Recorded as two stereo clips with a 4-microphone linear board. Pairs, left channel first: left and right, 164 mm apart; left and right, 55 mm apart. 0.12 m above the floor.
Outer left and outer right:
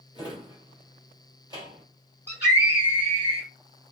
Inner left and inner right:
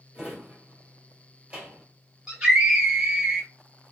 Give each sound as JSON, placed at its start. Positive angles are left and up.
{"t": 0.1, "sound": "a drawer", "side_deg": -25, "distance_m": 1.3}
{"t": 2.3, "sound": "a scream", "side_deg": -15, "distance_m": 1.7}